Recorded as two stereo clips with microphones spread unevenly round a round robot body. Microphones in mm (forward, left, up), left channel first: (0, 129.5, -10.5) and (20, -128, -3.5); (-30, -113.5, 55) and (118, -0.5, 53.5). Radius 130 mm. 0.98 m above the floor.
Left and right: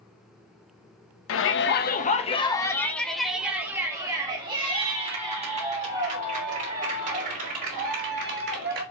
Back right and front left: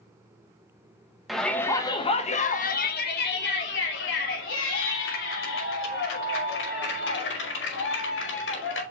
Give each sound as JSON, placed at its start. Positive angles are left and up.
{"t": 1.3, "sound": "a shout", "azimuth_deg": 125, "distance_m": 1.0}